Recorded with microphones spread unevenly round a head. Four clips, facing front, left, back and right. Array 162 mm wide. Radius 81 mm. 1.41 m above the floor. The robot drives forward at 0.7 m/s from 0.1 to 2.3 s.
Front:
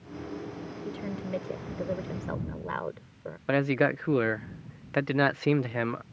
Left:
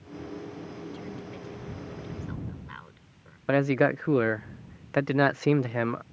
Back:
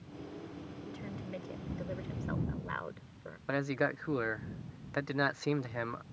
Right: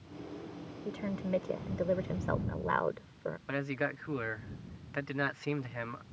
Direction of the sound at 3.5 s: 55° left.